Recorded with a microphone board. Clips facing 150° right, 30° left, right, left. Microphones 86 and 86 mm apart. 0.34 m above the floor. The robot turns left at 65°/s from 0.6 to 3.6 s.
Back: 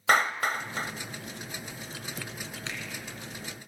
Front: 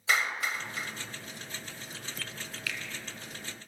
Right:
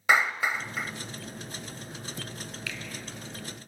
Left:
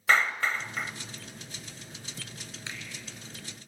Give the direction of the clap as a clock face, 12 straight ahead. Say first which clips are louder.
Back 5 dB, right 1 dB; 5 o'clock.